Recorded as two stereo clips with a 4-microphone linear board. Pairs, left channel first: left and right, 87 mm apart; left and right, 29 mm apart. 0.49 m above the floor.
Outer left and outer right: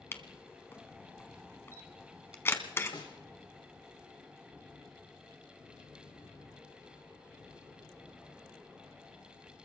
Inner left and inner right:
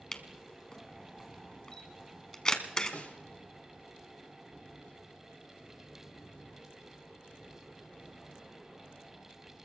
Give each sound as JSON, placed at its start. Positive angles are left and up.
{"t": 0.1, "sound": "a camera shutter", "side_deg": 25, "distance_m": 1.1}
{"t": 2.9, "sound": "a snare drum", "side_deg": 65, "distance_m": 2.5}